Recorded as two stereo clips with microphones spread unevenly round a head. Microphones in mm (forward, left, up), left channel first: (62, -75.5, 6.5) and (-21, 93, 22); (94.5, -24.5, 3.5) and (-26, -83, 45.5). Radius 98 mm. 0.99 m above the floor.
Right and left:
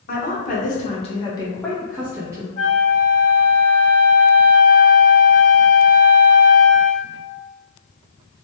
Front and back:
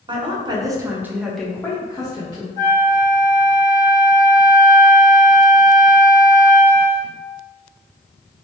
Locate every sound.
0.1 s a woman speaking: 90° right, 0.9 m; by 2.5 s 40° left, 0.8 m
2.6 s a flute: 50° right, 1.0 m